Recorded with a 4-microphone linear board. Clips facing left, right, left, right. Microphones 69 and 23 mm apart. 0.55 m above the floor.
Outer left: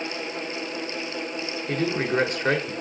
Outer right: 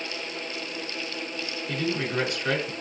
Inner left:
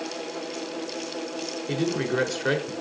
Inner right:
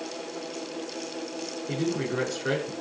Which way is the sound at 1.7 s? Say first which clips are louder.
Outer left 4 dB, inner left 3 dB; 40° left (ahead or behind).